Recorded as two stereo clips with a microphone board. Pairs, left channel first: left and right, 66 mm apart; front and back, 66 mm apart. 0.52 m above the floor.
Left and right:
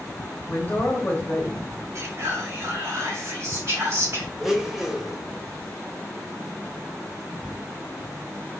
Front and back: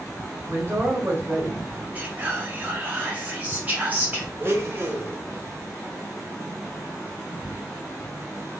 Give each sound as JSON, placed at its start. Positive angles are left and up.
{"t": 0.5, "sound": "a man speaking", "azimuth_deg": 145, "distance_m": 1.1}
{"t": 1.9, "sound": "whispering", "azimuth_deg": -120, "distance_m": 1.3}
{"t": 4.4, "sound": "a blender", "azimuth_deg": -175, "distance_m": 0.7}